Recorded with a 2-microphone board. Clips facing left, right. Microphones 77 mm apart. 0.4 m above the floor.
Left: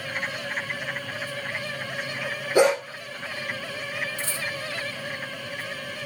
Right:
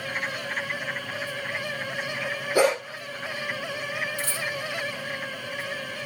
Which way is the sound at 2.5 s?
20° left (ahead or behind).